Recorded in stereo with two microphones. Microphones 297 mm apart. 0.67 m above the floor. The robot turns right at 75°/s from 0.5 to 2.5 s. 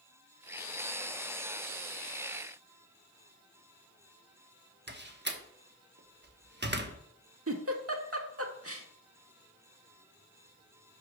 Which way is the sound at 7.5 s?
50° right (ahead or behind).